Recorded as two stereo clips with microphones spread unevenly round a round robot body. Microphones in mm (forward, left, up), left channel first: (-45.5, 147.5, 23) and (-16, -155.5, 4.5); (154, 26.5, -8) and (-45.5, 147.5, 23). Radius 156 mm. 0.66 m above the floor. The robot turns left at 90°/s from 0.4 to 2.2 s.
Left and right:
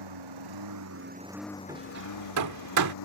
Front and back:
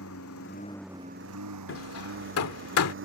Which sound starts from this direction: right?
A lawn mower, at 0.0 s.